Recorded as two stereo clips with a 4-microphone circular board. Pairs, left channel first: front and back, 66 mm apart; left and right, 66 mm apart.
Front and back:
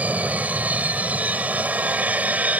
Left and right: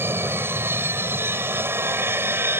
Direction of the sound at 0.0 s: 120° right.